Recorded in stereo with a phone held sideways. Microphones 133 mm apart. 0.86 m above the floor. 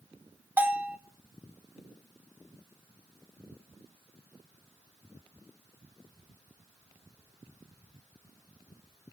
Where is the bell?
15° right (ahead or behind), 1.1 m.